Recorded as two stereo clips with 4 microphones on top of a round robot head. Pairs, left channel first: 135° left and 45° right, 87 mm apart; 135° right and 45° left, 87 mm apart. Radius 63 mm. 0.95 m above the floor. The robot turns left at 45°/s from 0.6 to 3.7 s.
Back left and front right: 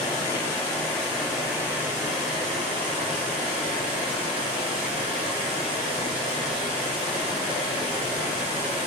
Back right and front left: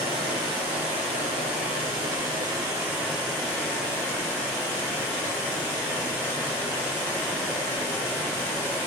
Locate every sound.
0.0 s running water: 75° left, 1.9 m; by 8.9 s 65° right, 1.9 m